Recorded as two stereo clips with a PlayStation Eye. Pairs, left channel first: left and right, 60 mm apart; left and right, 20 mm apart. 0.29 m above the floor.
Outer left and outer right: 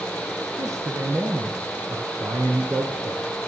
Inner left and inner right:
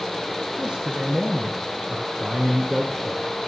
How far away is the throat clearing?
No throat clearing in this recording.